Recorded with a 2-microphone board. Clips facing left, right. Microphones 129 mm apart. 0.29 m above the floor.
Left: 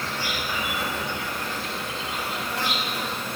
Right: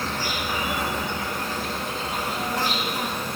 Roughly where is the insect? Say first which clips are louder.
Right 2 dB; right.